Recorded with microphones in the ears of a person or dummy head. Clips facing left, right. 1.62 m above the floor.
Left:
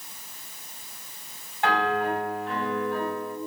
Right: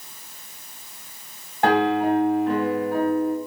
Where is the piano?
50° right (ahead or behind), 3.5 m.